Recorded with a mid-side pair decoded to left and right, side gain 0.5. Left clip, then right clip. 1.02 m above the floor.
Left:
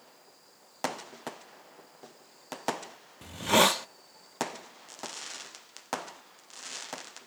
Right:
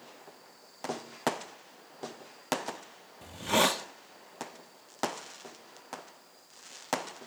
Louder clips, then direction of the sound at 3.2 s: Left 3 dB; 30° left.